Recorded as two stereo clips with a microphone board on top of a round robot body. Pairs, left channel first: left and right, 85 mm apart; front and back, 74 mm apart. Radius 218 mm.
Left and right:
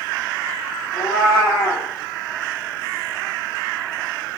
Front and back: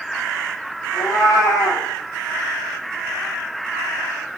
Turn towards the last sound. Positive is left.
turn(degrees=40)